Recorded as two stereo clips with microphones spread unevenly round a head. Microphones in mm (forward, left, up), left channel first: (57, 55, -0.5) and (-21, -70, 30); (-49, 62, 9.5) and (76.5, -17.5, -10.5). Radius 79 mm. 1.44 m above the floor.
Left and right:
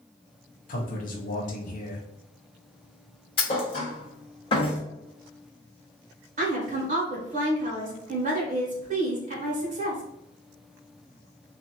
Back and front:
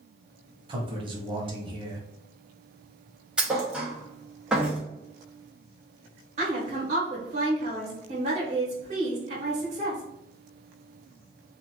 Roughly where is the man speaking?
Ahead left.